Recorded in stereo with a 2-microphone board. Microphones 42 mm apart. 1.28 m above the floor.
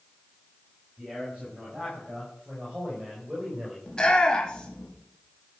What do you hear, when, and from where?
1.0 s a man speaking: 25° right (ahead or behind), 6 m; by 3.8 s 20° right (ahead or behind), 4.5 m
3.9 s a shout: 15° left (ahead or behind), 3 m